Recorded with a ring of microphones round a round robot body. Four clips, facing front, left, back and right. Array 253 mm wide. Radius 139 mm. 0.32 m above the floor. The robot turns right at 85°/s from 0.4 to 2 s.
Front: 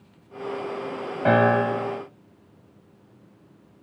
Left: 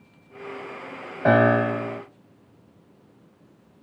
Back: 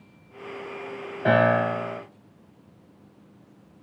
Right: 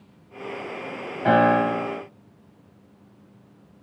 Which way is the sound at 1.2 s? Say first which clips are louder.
Even, front 1 dB; 60° left.